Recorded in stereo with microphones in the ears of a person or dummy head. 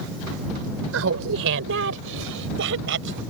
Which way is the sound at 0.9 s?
85° right.